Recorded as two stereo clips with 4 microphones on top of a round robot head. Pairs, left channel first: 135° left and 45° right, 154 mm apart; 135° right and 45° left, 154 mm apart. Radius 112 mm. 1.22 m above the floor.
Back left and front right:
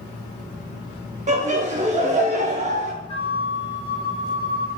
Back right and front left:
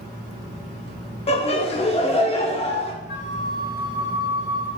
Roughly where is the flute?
Behind.